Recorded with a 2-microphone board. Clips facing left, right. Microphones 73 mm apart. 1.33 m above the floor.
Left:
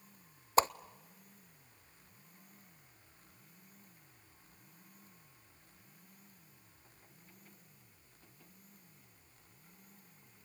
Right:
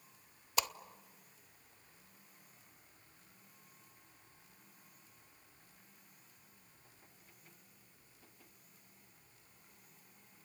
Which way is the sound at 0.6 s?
35° left (ahead or behind).